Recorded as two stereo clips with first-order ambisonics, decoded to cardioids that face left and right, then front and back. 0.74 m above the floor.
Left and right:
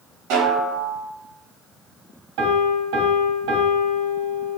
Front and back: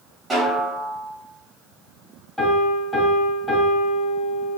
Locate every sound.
0.3 s a snare drum: 105° right, 3 m
2.4 s a piano: 85° right, 2.5 m